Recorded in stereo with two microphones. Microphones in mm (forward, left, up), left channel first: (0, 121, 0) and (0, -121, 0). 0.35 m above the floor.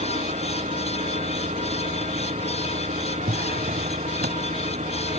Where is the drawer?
40° right (ahead or behind).